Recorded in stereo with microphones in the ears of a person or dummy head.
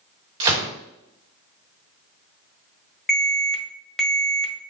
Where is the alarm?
5° left (ahead or behind), 1.3 m.